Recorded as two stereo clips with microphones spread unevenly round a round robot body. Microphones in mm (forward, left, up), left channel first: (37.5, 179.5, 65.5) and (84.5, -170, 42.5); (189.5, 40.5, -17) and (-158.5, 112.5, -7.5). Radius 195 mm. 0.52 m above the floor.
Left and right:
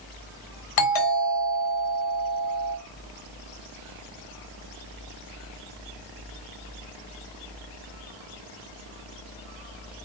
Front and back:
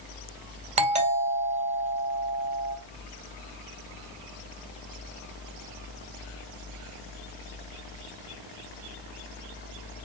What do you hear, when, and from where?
0.8 s a doorbell: 100° left, 2 m